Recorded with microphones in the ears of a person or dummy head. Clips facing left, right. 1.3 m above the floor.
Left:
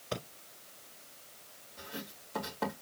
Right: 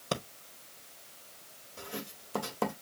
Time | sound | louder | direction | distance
0.1 | breathing | right 4 dB | 70° right (ahead or behind) | 1.4 m
1.8 | writing | right 3 dB | 55° right (ahead or behind) | 2 m